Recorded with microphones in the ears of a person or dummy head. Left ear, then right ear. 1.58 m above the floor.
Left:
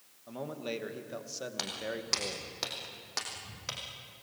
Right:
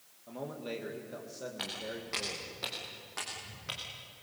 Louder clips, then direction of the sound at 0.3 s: Left 2 dB; 15° left (ahead or behind).